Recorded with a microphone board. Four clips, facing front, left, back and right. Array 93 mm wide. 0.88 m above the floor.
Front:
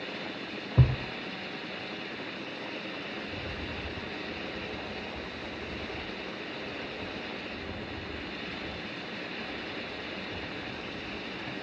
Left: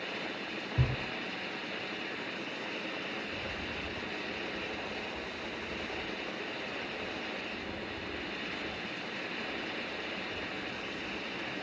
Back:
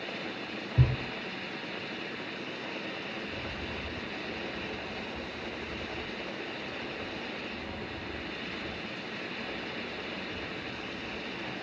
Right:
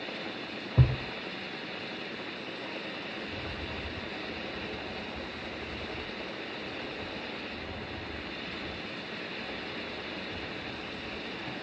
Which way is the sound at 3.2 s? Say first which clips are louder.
Even, even; 40° right.